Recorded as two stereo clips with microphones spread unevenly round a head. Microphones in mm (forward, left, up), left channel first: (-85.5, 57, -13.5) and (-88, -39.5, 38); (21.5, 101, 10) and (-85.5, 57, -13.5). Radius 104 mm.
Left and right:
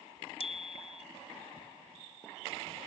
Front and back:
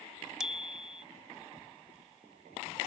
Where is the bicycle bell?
115° left.